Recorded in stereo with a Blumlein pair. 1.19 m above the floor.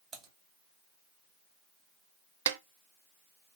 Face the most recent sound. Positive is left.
turn(degrees=-55)